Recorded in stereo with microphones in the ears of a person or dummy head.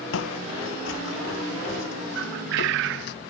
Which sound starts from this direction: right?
A bird, at 2.1 s.